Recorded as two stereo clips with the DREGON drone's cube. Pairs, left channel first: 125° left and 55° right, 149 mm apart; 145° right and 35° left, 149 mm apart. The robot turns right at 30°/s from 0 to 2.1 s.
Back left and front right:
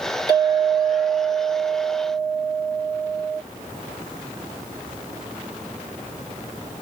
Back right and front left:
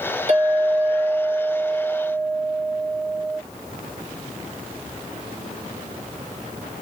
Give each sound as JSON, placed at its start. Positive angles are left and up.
{"t": 0.3, "sound": "a clink", "azimuth_deg": 65, "distance_m": 1.5}